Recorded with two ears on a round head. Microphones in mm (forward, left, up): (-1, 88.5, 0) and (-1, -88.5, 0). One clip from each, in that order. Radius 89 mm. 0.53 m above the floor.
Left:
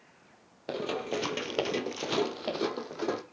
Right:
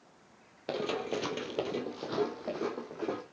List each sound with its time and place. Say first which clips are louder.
0.7 s running footsteps: left 1 dB; 10° right (ahead or behind), 1.1 m; by 3.2 s 65° left (ahead or behind), 1.8 m